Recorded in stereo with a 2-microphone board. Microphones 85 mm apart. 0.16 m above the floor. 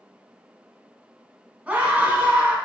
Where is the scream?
15° right (ahead or behind), 1.0 m.